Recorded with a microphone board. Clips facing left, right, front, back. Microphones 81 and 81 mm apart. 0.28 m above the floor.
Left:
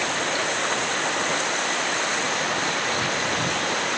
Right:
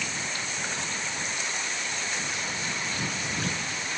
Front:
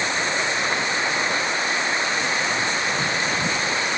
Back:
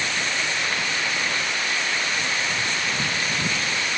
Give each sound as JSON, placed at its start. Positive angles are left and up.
{"t": 0.0, "sound": "running water", "azimuth_deg": 65}